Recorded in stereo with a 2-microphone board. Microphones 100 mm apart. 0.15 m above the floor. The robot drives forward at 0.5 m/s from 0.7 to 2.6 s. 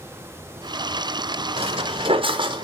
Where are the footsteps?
80° right, 1.8 m; by 2.6 s 45° right (ahead or behind), 1.5 m.